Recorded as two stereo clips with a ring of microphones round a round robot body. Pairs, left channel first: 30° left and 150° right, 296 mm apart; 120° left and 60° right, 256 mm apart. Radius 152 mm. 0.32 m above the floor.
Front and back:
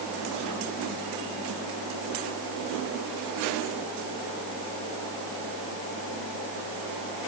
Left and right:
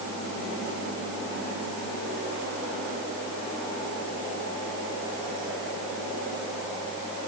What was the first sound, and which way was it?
Only background noise.